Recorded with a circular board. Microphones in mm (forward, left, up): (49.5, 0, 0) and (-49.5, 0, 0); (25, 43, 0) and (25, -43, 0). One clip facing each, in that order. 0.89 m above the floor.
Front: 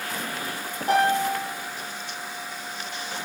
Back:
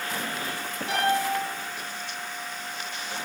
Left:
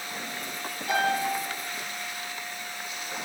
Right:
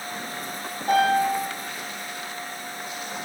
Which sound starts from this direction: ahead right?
A piano, at 0.9 s.